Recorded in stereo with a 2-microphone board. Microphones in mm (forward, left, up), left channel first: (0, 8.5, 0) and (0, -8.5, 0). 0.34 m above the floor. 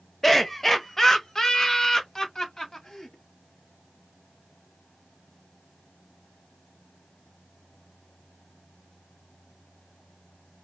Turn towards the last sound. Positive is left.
turn(degrees=45)  # may be behind; listen again after turning